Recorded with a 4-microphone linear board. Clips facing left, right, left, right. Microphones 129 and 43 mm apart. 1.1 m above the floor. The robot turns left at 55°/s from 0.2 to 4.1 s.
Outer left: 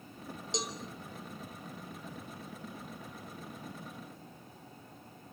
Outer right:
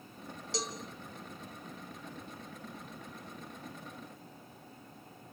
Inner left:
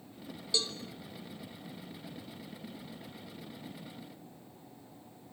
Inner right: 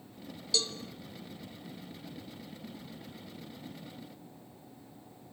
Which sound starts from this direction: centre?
A cowbell, at 0.5 s.